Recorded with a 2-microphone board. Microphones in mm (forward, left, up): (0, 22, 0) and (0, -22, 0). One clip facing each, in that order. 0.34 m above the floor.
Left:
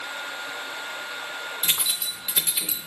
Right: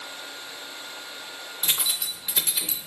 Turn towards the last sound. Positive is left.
turn(degrees=15)  # may be behind; listen again after turning